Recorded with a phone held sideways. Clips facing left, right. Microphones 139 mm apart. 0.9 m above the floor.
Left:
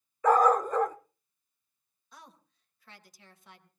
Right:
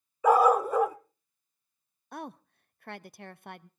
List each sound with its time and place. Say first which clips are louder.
0.2 s a dog barking: right 1 dB; 10° right (ahead or behind), 0.5 m
2.1 s a woman speaking: right 14 dB; 60° right (ahead or behind), 0.6 m